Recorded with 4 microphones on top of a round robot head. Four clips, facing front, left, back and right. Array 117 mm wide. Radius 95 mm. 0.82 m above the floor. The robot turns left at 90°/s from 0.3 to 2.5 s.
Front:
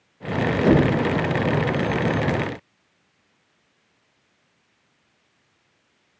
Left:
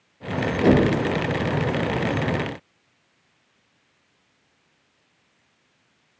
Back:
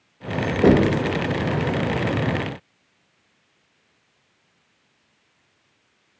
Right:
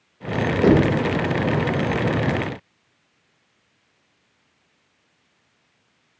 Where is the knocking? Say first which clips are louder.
Right 1 dB, back 2 dB; 150° right, 0.7 m; by 1.0 s straight behind, 0.7 m.